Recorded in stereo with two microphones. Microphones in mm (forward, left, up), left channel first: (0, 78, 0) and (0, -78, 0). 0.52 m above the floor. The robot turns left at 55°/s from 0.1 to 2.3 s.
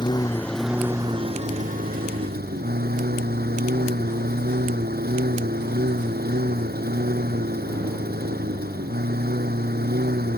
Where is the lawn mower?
30° left; by 10.4 s 95° right.